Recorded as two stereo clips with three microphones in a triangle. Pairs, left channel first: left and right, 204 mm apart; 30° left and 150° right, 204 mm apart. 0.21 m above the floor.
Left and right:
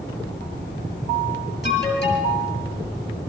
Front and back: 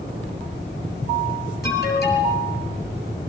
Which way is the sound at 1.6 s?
65° left.